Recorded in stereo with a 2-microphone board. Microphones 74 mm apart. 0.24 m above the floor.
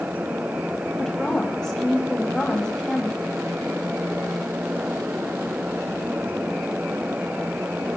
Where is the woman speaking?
10° left (ahead or behind), 1.1 m.